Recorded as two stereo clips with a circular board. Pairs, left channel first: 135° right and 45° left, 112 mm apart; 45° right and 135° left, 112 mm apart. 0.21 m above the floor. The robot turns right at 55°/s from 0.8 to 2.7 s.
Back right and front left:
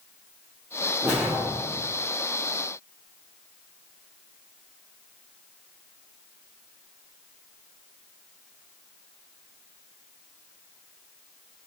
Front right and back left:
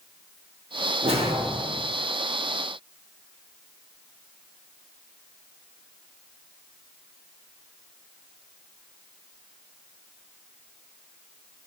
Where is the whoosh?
120° left, 2.5 m; by 1.9 s 165° left, 2.5 m.